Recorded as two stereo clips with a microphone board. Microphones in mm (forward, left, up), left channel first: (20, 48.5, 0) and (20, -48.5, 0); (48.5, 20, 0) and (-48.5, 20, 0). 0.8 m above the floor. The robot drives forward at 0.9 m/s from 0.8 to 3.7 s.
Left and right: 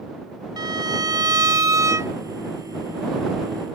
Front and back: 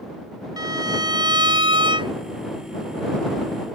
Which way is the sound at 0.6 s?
135° right.